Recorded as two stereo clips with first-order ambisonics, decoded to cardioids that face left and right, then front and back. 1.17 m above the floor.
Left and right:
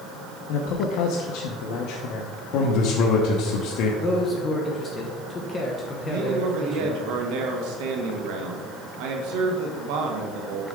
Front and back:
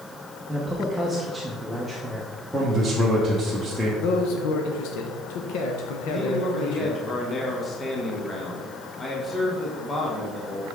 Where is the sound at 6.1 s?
75° right, 1.0 m.